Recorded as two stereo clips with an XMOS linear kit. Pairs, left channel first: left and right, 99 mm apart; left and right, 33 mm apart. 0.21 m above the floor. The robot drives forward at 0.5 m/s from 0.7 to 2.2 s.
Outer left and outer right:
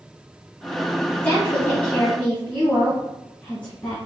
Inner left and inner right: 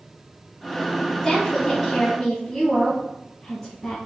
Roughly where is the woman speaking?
Centre.